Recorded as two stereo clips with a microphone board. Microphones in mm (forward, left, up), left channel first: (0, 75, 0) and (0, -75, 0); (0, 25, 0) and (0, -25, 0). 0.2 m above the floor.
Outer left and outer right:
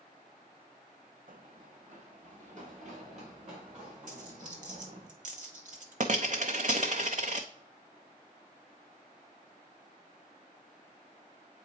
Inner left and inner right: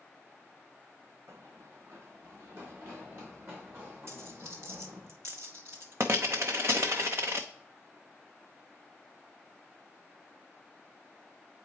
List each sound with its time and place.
1.3 s running footsteps: 65° right (ahead or behind), 0.7 m; by 5.1 s 50° right (ahead or behind), 6.5 m
4.1 s a dropped coin: 55° right (ahead or behind), 0.7 m